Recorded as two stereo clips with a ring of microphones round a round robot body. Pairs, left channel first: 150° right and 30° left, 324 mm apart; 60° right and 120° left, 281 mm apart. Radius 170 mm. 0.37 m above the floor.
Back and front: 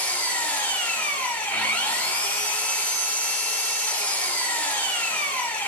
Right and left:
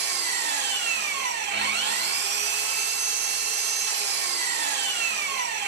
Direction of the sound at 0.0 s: 125° left.